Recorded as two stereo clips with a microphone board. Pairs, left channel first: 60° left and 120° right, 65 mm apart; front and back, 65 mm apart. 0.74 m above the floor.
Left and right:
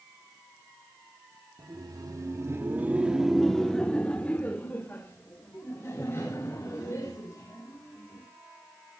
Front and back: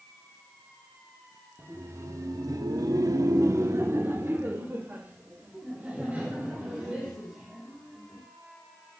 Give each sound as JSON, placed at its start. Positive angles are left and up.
{"t": 1.6, "sound": "laughter", "azimuth_deg": -130, "distance_m": 1.4}